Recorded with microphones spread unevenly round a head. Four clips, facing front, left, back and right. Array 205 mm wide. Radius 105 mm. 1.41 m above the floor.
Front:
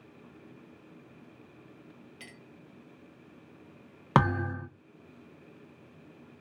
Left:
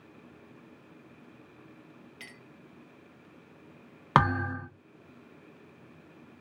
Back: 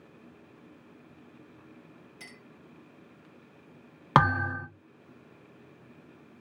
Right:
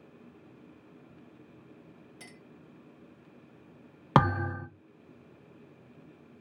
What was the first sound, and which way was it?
A clink, 70° right.